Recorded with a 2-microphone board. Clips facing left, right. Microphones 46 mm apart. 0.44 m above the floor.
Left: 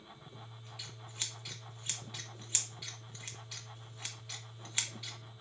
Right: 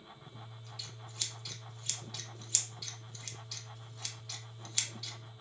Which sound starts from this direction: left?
Scissors, at 0.3 s.